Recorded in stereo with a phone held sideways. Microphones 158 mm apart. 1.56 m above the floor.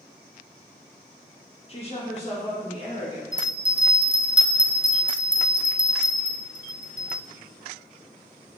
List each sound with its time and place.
1.7 s a woman speaking: 35° left (ahead or behind), 1.4 m; by 3.2 s 40° left (ahead or behind), 3 m
3.3 s a bell: 25° right (ahead or behind), 0.6 m